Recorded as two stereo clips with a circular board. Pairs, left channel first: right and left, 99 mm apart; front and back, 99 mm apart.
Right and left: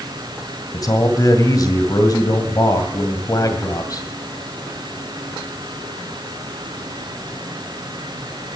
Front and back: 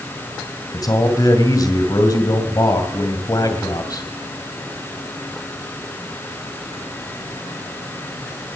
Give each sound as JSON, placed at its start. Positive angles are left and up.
{"t": 0.7, "sound": "a man speaking", "azimuth_deg": -45, "distance_m": 2.0}